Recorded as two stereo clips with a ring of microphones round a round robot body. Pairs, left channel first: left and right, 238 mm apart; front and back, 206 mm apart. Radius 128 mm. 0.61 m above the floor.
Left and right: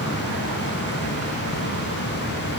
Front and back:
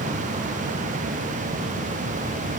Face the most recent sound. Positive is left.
No sound to turn to.